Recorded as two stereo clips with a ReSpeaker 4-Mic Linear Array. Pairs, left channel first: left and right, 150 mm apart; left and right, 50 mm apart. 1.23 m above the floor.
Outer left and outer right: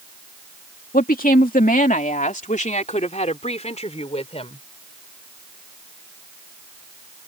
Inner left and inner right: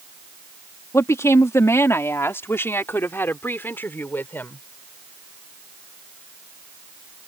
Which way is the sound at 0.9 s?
75° left (ahead or behind).